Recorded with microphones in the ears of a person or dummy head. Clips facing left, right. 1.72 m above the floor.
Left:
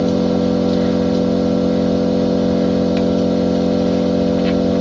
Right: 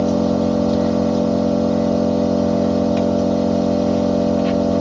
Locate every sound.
0.0 s an engine running: 25° left (ahead or behind), 0.8 m